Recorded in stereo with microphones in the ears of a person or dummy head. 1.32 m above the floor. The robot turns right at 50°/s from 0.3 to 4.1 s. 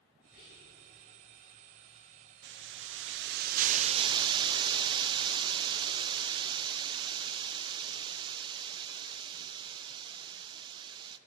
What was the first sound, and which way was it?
Whispering, 50° left (ahead or behind).